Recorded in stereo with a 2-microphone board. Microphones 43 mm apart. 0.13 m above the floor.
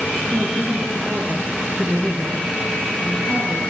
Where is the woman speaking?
25° right (ahead or behind), 4.5 m.